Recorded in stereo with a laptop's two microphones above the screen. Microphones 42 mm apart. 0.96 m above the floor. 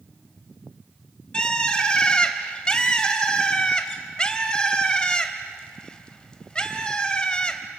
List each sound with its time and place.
1.3 s a bird: 20° left (ahead or behind), 2.0 m